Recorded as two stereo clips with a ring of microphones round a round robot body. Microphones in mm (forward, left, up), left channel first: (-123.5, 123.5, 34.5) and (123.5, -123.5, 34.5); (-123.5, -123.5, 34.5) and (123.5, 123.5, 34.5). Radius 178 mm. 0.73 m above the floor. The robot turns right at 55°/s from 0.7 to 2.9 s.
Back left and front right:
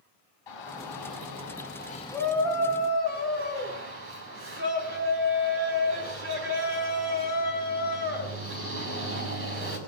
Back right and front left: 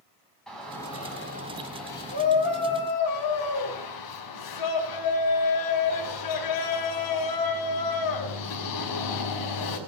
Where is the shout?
135° left, 5.5 m; by 9.8 s 100° right, 5.5 m.